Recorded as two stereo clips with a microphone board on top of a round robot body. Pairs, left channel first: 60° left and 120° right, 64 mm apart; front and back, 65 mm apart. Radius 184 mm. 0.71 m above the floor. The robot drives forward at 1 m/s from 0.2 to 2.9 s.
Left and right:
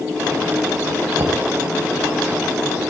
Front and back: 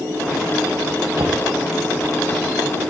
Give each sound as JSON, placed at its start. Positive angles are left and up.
{"t": 1.2, "sound": "knocking", "azimuth_deg": -145, "distance_m": 4.0}